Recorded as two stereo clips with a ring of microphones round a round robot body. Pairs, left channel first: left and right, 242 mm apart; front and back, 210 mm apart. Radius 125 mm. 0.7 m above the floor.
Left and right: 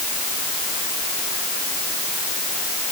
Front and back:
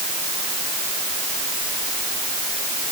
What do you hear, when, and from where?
Only background noise.